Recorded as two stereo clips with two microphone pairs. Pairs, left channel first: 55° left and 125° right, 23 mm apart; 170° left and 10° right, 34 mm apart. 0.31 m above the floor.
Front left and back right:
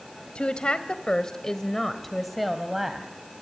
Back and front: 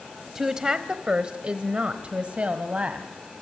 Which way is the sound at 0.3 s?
65° left.